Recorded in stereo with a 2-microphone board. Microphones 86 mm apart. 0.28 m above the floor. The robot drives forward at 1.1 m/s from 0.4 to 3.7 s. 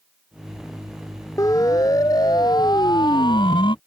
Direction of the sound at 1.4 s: 40° left (ahead or behind).